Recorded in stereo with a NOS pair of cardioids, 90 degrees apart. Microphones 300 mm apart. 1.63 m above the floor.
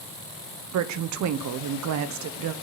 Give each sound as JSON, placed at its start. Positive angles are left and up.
{"t": 0.7, "sound": "a woman speaking", "azimuth_deg": -70, "distance_m": 0.8}